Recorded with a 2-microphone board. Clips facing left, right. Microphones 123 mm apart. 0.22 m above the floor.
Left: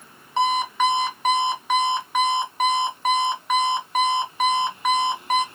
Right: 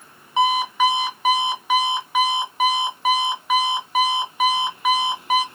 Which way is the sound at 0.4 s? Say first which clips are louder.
Right 2 dB; 5° right (ahead or behind).